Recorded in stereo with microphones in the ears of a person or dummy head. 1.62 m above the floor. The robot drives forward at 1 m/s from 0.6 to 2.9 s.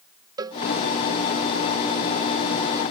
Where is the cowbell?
25° right (ahead or behind).